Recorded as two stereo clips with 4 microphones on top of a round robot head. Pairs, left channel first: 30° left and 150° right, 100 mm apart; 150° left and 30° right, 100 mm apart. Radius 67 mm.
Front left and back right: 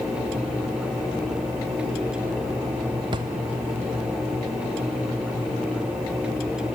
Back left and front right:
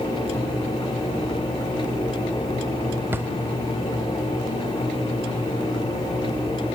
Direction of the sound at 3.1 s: 100° right.